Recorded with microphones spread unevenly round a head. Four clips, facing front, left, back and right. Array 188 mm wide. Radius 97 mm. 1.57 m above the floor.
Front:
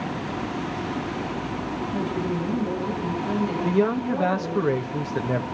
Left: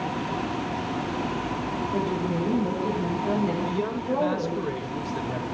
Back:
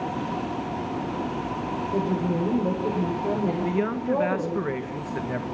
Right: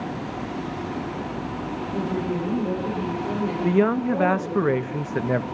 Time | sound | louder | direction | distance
1.9 | a woman speaking | right 2 dB, back 2 dB | 170° left | 8.5 m
3.6 | a man speaking | right 7 dB, front 3 dB | 60° right | 1.4 m